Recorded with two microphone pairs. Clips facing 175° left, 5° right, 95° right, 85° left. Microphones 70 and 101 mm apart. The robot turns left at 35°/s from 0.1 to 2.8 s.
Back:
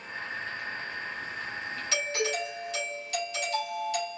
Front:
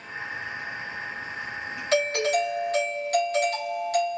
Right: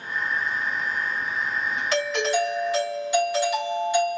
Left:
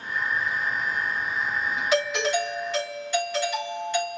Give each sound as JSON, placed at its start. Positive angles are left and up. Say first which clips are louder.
{"t": 1.9, "sound": "a doorbell", "louder": "front 9 dB, even", "azimuth_deg": 10, "distance_m": 3.0}